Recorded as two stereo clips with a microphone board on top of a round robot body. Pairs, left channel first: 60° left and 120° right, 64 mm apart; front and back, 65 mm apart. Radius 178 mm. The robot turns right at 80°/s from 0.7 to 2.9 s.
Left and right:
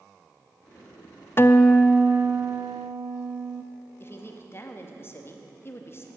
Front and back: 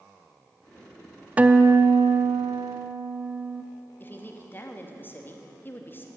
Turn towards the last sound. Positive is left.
turn(degrees=40)